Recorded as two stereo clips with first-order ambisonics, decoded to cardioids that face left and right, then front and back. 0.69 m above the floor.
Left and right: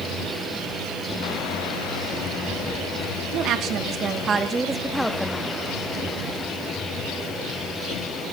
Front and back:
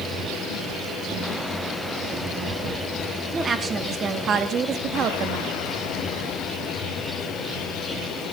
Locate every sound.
3.3 s a woman speaking: 115° right, 1.2 m; by 5.6 s 160° left, 1.0 m